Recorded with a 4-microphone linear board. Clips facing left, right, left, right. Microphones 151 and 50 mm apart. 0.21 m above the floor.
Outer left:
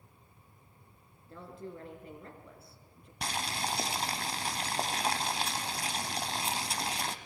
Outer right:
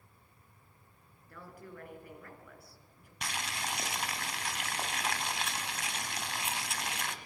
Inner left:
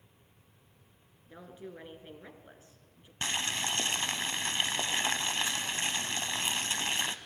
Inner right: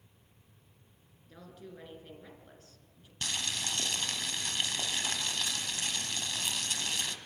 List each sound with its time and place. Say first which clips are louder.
1.3 s a woman speaking: outer left 5 dB, inner left 3 dB; 25° left (ahead or behind), 2.5 m
3.2 s boiling: outer left 4 dB, inner left 3 dB; 35° left (ahead or behind), 1.0 m